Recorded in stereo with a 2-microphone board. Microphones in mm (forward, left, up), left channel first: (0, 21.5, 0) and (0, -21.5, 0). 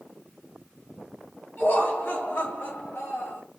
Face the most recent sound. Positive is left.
turn(degrees=70)  # may be behind; listen again after turning